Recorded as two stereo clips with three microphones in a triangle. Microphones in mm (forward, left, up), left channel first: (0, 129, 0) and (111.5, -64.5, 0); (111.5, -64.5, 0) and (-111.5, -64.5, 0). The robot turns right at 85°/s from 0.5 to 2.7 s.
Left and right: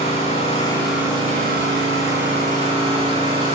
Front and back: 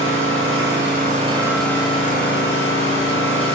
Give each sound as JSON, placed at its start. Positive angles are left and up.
{"t": 0.0, "sound": "an engine running", "azimuth_deg": 175, "distance_m": 6.0}